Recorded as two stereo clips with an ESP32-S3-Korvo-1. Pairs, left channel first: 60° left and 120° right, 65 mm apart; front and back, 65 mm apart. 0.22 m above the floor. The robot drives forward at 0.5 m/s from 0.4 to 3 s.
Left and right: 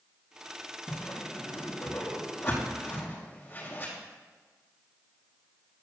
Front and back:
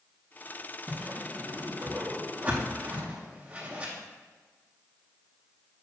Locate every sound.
0.9 s a whoosh: 100° left, 4 m; by 3.9 s 115° left, 4.5 m